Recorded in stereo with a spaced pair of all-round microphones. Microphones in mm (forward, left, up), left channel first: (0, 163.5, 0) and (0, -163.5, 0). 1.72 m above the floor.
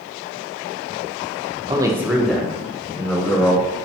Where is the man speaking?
15° right (ahead or behind), 0.5 m; by 3.9 s 15° left (ahead or behind), 1.8 m.